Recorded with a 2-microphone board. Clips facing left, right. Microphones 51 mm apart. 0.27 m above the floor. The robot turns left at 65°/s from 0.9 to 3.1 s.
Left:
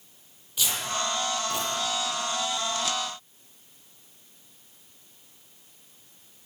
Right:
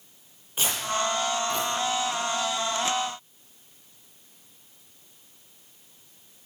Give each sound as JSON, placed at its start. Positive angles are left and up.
{"t": 0.6, "sound": "tearing paper", "side_deg": -35, "distance_m": 6.0}